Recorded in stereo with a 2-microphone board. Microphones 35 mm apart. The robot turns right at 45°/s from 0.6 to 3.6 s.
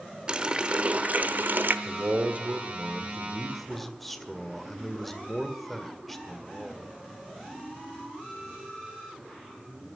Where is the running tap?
150° right, 0.9 m; by 1.8 s 100° right, 0.9 m.